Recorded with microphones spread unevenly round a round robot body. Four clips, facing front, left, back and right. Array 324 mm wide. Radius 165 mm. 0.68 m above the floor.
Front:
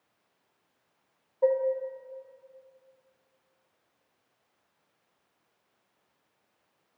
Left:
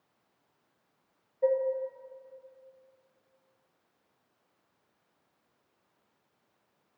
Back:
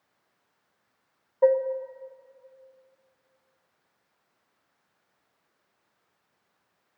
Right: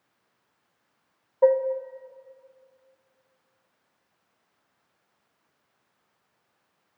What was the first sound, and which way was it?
Dishes clattering, 115° right.